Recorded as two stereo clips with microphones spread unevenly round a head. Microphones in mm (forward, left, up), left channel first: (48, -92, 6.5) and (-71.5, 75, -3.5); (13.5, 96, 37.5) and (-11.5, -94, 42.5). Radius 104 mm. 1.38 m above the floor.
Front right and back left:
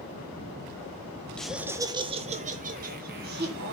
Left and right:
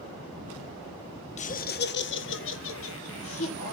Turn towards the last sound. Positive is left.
turn(degrees=80)